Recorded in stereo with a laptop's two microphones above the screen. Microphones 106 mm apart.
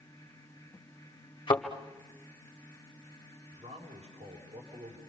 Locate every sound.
0.0 s a fan: 25° left (ahead or behind), 2 m
1.5 s a thud: 45° left (ahead or behind), 2 m
3.5 s a man speaking: 85° right, 4 m